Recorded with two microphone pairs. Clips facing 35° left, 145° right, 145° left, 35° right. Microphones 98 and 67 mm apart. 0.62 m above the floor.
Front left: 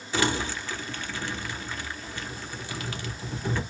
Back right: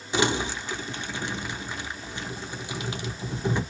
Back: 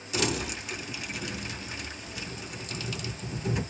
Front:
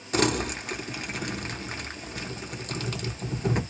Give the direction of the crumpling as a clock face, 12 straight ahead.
2 o'clock.